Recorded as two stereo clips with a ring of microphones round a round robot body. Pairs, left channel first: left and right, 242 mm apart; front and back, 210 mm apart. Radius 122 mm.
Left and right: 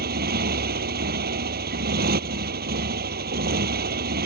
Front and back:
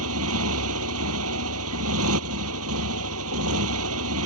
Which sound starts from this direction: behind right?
A motorcycle, at 0.0 s.